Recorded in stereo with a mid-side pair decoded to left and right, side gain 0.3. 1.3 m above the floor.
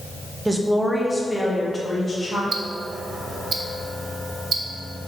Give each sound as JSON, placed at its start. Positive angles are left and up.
{"t": 0.5, "sound": "a woman speaking", "azimuth_deg": -20, "distance_m": 1.2}
{"t": 2.5, "sound": "ticking", "azimuth_deg": -65, "distance_m": 0.9}